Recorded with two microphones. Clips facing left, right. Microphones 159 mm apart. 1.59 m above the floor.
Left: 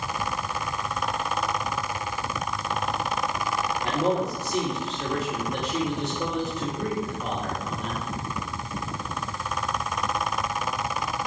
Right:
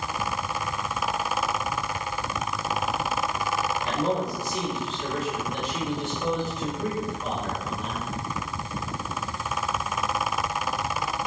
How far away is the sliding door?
No sliding door in this recording.